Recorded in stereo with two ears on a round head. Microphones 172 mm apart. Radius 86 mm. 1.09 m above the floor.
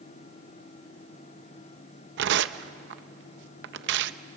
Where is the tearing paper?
65° right (ahead or behind), 0.7 m.